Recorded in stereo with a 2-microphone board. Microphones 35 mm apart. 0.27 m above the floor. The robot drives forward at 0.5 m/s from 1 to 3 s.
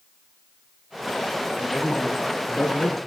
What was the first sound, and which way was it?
A man speaking, 65° left (ahead or behind).